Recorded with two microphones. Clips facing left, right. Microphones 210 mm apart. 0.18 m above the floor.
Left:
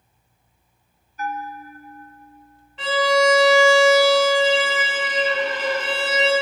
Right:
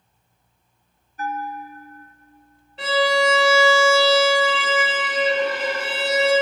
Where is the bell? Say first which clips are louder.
Right 1 dB; 30° right (ahead or behind), 0.6 m.